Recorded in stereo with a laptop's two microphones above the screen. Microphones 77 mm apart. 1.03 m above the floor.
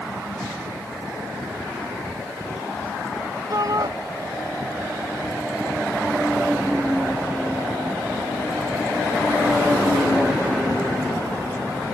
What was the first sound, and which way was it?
A shout, 50° right (ahead or behind).